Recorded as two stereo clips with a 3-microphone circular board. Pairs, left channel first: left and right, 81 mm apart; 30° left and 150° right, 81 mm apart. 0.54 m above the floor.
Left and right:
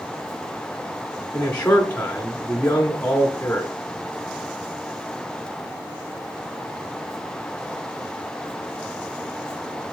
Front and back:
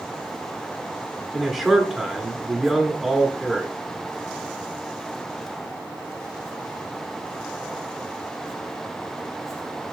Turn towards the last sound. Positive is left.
turn(degrees=130)